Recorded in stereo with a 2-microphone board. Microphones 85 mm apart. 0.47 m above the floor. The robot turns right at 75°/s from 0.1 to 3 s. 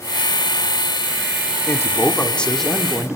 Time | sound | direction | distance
1.7 | a man speaking | 105° left | 1.2 m